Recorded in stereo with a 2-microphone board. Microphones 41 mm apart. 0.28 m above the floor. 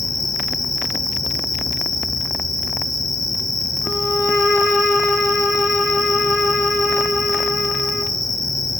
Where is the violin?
5° right (ahead or behind), 5 m.